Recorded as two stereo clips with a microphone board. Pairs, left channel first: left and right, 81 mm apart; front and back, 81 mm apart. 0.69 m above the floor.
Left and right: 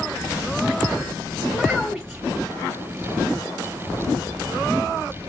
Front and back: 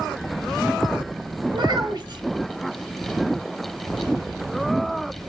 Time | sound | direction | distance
1.5 | a child speaking | 175° left | 1.7 m